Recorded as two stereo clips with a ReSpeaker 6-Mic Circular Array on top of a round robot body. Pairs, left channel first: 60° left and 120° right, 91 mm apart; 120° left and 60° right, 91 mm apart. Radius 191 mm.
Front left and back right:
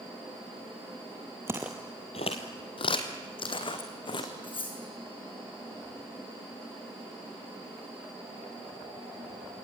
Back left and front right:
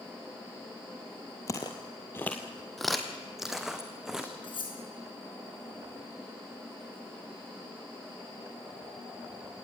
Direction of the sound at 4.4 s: 90° left.